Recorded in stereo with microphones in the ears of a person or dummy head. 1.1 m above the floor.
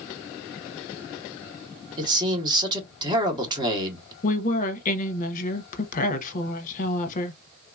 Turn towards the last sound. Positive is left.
turn(degrees=45)  # may be behind; listen again after turning